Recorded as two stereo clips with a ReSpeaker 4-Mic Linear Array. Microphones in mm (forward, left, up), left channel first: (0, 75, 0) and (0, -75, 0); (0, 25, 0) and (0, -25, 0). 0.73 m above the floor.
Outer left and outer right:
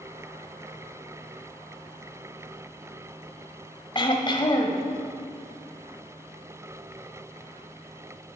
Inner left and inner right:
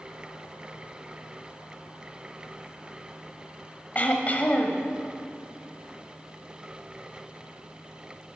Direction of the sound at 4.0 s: 35° left (ahead or behind).